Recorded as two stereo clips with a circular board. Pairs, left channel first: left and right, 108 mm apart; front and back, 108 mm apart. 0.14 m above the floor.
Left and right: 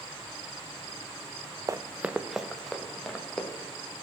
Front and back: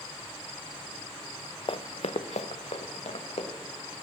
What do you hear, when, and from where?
1.7 s running footsteps: 35° right, 0.6 m; by 3.5 s 5° left, 2.5 m